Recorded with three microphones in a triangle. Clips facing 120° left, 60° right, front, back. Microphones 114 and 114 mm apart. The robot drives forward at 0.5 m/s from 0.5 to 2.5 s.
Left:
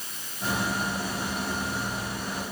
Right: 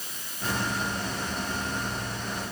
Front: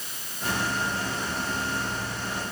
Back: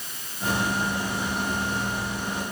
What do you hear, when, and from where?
Only background noise.